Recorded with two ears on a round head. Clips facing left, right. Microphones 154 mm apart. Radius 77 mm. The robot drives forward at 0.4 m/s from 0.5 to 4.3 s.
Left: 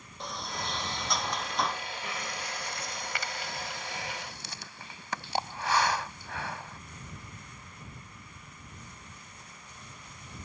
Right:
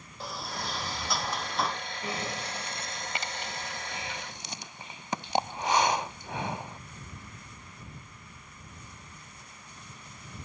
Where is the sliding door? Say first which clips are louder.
Even; 5° right (ahead or behind); by 1.8 s centre (ahead or behind).